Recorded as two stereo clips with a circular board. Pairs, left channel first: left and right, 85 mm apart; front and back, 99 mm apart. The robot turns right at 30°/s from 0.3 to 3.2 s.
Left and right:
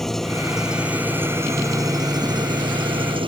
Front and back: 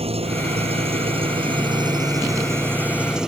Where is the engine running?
175° left; by 3.3 s 95° right.